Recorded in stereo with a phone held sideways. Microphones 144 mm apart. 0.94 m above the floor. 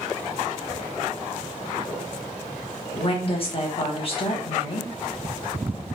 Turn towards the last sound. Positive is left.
turn(degrees=40)  # may be behind; listen again after turning